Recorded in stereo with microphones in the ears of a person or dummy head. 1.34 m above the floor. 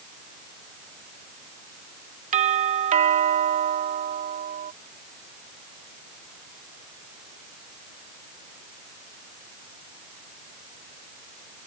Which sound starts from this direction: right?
A doorbell, at 2.3 s.